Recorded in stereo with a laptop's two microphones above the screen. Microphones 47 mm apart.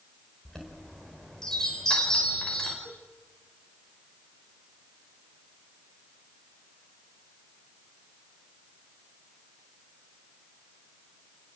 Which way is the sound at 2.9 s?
85° left.